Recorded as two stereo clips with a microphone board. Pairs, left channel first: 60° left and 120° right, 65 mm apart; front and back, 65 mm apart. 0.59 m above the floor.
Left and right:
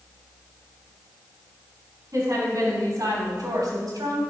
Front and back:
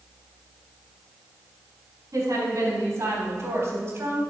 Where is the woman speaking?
155° right, 4.5 m; by 4.2 s 135° right, 3 m.